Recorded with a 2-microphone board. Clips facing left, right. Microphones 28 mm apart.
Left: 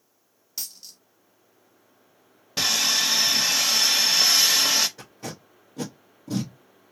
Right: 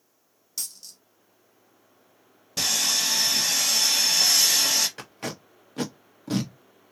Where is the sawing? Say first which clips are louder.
Left 2 dB; 25° left (ahead or behind), 0.8 m.